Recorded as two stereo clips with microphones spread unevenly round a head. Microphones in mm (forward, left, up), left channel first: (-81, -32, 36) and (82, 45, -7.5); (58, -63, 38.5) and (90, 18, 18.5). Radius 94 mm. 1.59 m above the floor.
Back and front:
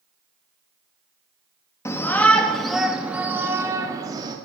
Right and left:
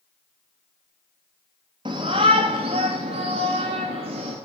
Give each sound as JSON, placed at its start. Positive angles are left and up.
{"t": 1.9, "sound": "a shout", "azimuth_deg": 130, "distance_m": 2.0}